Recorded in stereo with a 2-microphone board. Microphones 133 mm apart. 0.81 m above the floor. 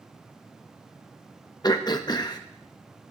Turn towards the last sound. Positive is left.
turn(degrees=30)  # may be behind; listen again after turning